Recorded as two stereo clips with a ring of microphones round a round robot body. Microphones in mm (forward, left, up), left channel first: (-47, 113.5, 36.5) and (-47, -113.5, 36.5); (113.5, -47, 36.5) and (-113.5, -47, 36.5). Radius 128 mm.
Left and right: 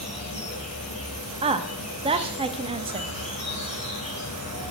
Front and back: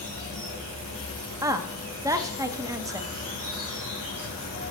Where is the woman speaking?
120° right, 0.5 m.